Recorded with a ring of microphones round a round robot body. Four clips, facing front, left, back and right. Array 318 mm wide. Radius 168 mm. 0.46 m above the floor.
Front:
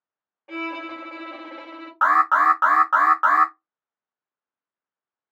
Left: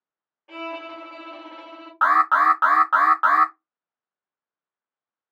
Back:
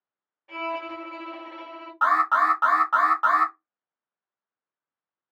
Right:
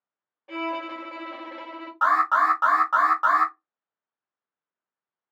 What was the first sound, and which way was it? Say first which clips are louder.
A violin: right 3 dB, even; 20° right.